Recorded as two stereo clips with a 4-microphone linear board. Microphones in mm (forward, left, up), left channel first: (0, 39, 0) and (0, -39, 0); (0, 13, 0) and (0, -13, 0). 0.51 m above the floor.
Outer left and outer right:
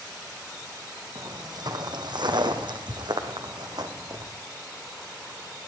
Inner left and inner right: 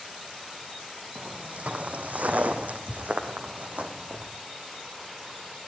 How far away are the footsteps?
About 2.0 m.